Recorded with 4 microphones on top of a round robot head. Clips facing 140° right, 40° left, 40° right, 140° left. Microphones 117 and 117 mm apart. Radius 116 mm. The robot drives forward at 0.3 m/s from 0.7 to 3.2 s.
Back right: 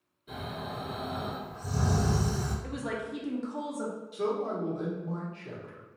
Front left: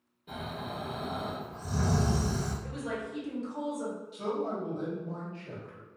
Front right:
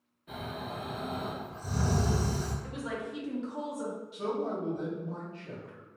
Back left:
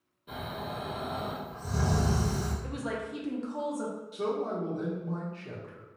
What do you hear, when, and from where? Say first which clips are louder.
0.3 s snoring: even, back left 1 dB; 75° left, 1.3 m; by 2.5 s 115° left, 1.3 m
2.6 s a woman speaking: back right 1 dB, back left 2 dB; 170° right, 0.5 m
4.1 s a man speaking: back right 3 dB, back left 2 dB; straight behind, 1.0 m